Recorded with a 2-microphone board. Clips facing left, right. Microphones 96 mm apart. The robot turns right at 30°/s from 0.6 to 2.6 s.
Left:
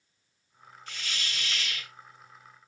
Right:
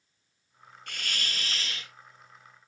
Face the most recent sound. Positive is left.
turn(degrees=-5)